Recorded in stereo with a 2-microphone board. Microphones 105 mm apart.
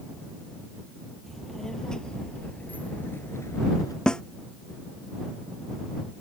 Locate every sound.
1.3 s a child speaking: 5° left (ahead or behind); by 4.0 s 40° left (ahead or behind)
4.1 s a snare drum: 10° left (ahead or behind)